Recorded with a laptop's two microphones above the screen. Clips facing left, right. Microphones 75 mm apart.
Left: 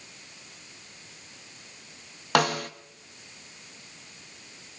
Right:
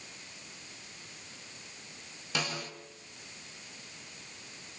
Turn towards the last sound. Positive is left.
turn(degrees=65)  # may be behind; listen again after turning